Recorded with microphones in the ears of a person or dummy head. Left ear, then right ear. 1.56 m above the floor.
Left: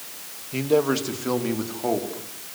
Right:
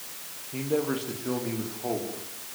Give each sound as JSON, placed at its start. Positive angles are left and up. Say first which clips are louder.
{"t": 0.5, "sound": "a man speaking", "louder": "left 7 dB", "side_deg": 85, "distance_m": 2.0}